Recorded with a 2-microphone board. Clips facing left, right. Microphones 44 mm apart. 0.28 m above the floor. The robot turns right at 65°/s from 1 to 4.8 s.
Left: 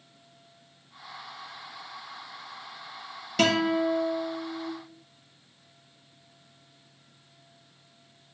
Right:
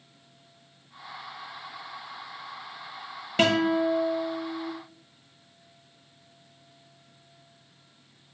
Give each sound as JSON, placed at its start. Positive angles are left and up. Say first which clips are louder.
{"t": 3.4, "sound": "a guitar", "louder": "right 1 dB", "side_deg": -25, "distance_m": 1.1}